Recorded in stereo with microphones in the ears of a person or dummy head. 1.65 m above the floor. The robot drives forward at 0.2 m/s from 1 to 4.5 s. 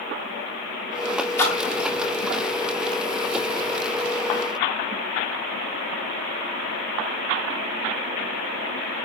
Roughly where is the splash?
Centre.